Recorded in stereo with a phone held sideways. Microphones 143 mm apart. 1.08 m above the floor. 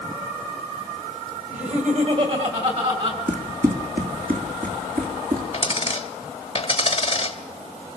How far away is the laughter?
About 4 m.